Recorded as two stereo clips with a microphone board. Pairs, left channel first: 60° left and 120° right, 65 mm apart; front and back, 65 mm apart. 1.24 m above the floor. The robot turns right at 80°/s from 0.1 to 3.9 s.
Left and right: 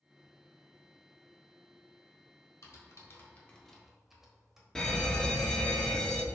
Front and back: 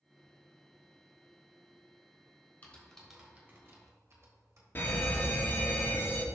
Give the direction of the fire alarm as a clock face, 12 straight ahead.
12 o'clock.